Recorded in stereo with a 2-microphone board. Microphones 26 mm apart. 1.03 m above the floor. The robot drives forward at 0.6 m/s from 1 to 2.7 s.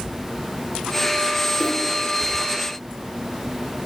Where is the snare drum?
40° right (ahead or behind), 2 m.